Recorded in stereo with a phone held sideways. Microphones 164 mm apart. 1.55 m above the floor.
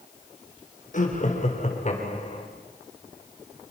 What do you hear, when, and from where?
0.9 s laughter: 50° left (ahead or behind), 4.5 m; by 2.5 s 40° left (ahead or behind), 4.5 m